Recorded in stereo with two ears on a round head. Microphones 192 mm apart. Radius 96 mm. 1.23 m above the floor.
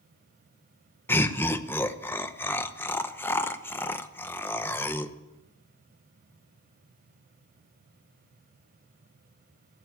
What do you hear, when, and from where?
1.1 s laughter: 10° left (ahead or behind), 0.8 m